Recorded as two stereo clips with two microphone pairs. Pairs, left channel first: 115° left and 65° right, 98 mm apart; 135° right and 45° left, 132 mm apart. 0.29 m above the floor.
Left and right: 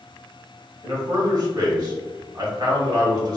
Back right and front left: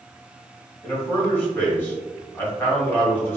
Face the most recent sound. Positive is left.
turn(degrees=-70)